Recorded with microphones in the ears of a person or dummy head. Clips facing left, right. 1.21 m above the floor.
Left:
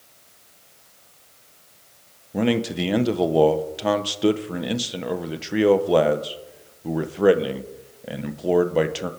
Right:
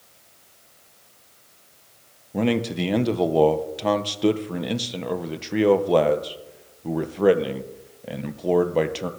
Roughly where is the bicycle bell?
I don't hear a bicycle bell.